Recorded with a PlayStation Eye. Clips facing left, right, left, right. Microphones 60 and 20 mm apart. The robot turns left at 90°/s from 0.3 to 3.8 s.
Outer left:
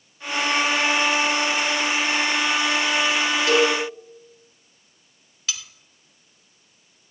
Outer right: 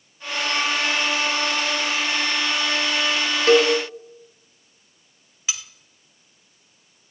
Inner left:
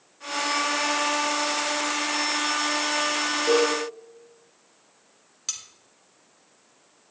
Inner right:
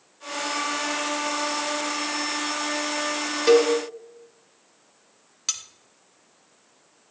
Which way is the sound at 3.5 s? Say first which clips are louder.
Outer right 4 dB, inner right 5 dB; 40° right (ahead or behind).